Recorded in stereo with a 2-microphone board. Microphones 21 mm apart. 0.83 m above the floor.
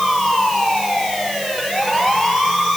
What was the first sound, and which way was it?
Only background noise.